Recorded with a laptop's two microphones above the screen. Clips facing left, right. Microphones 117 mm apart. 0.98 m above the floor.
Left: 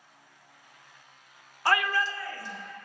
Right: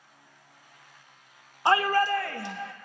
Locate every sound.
1.6 s a shout: 20° right (ahead or behind), 0.6 m; by 2.7 s 80° right, 1.2 m